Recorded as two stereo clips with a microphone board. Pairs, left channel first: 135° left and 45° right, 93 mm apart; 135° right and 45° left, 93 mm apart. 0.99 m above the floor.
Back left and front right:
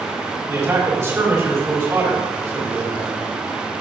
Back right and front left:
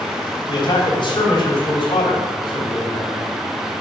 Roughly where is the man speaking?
Right.